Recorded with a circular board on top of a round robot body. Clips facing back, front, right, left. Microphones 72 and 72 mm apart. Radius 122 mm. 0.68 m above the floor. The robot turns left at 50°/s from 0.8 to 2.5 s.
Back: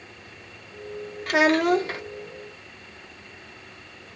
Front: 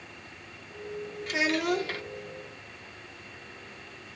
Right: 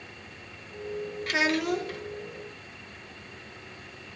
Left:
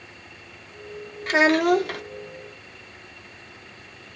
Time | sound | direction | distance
1.3 | a child speaking | 150° left | 0.7 m